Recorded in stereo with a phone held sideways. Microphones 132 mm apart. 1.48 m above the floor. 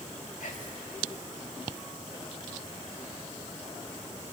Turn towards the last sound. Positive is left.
turn(degrees=80)